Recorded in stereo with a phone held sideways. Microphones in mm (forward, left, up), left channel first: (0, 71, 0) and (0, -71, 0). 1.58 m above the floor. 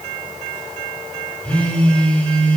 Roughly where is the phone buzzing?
Centre.